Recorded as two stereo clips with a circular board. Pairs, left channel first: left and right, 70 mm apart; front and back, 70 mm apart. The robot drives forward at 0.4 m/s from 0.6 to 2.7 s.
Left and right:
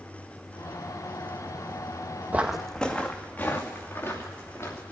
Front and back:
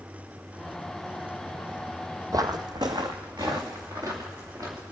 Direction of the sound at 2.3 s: 155° right.